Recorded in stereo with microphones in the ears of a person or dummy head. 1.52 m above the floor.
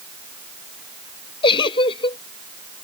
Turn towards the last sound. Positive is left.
turn(degrees=25)  # may be behind; listen again after turning